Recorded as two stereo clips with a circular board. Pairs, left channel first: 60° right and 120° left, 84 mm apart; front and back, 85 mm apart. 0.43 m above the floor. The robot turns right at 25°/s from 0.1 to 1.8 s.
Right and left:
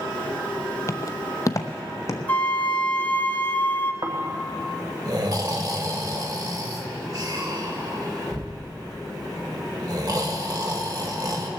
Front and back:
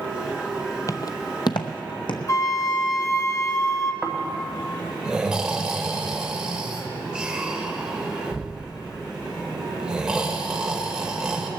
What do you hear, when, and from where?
0.9 s footsteps: 25° right, 0.5 m; by 2.2 s 10° right, 1.2 m
2.3 s a flute: straight ahead, 0.8 m
4.0 s snoring: 100° left, 1.3 m